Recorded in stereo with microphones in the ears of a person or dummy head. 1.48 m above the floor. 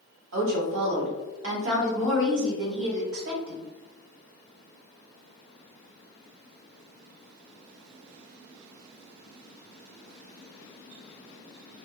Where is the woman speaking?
80° right, 1.6 m.